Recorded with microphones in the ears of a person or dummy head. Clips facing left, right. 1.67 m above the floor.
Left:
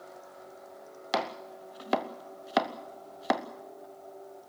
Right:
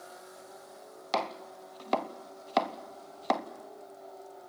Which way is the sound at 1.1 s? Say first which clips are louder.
Left 1 dB; 10° left (ahead or behind).